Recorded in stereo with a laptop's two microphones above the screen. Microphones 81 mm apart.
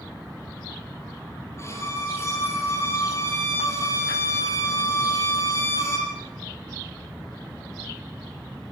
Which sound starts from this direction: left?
A violin, at 1.6 s.